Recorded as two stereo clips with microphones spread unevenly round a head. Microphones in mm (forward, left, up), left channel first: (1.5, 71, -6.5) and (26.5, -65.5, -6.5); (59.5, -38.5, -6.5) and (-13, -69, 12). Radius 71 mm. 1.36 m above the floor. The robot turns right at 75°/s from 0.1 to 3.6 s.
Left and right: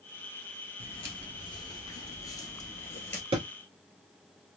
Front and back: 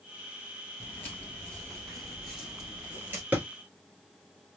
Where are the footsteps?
90° left, 1.7 m; by 3.2 s 175° left, 1.7 m.